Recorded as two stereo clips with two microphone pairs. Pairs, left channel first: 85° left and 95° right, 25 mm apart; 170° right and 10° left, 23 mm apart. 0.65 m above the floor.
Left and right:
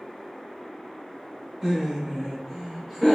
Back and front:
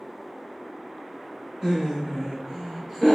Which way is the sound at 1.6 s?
20° right.